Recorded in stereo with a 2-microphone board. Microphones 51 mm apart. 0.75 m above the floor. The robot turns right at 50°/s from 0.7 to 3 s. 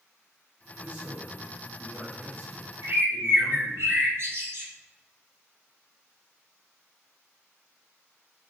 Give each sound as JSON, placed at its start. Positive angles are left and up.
{"t": 0.8, "sound": "a man speaking", "azimuth_deg": -155, "distance_m": 1.7}
{"t": 2.8, "sound": "a bird", "side_deg": -55, "distance_m": 1.1}